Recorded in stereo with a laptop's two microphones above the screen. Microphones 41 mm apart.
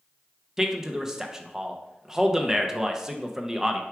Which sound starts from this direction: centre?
A man speaking, at 0.6 s.